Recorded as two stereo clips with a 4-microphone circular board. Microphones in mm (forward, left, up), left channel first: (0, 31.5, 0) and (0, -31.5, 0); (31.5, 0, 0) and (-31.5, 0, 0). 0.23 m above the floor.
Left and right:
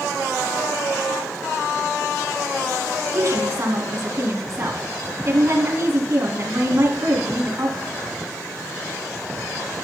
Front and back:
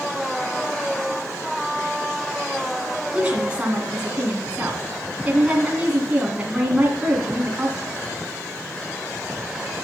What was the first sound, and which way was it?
A woman speaking, 115° right.